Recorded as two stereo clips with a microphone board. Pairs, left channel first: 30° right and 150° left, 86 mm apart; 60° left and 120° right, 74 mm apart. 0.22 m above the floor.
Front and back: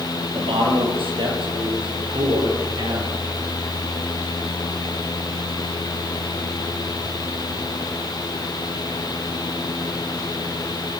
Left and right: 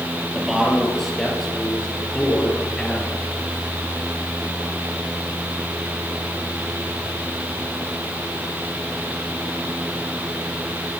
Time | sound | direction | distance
0.2 | a man speaking | 155° left | 5 m